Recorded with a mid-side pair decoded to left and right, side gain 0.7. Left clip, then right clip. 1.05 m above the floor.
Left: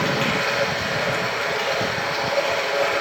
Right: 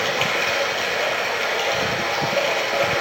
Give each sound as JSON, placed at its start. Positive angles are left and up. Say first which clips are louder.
{"t": 0.0, "sound": "running water", "louder": "right 1 dB", "azimuth_deg": -45, "distance_m": 3.0}